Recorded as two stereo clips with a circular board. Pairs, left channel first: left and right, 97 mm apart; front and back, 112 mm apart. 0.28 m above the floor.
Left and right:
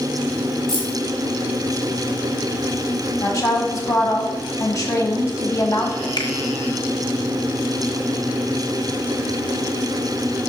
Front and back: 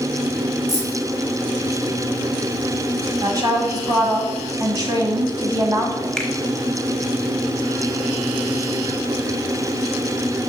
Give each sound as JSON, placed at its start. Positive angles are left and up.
{"t": 0.7, "sound": "keys jangling", "azimuth_deg": 125, "distance_m": 2.5}
{"t": 3.2, "sound": "a woman speaking", "azimuth_deg": 135, "distance_m": 1.7}
{"t": 6.2, "sound": "a finger snap", "azimuth_deg": 80, "distance_m": 1.0}